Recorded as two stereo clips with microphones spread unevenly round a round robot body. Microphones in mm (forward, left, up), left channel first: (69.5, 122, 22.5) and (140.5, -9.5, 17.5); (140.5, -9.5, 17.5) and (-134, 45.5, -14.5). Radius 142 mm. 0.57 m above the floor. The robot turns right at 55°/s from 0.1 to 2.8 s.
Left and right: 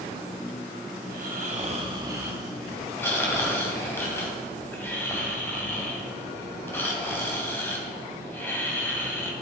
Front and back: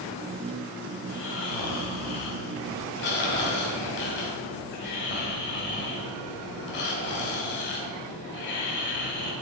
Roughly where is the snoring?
Ahead right.